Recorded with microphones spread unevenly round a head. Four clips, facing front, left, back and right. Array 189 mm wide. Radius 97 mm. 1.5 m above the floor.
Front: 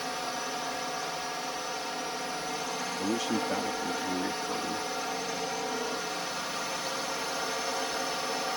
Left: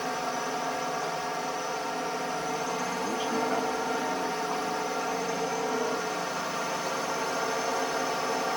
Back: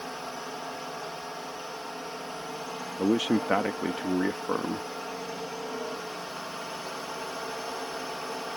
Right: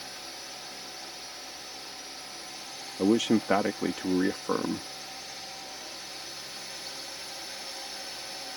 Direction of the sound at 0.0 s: 90° left.